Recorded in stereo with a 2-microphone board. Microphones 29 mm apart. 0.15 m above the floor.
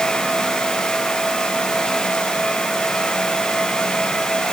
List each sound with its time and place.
Only background noise.